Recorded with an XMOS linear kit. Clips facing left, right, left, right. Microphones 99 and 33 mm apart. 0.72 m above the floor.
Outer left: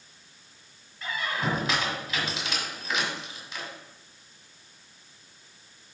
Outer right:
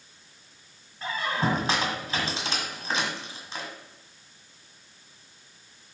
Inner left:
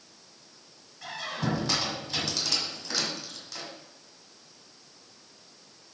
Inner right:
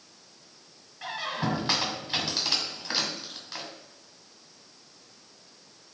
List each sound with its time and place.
1.0 s a squeak: 35° right (ahead or behind), 1.7 m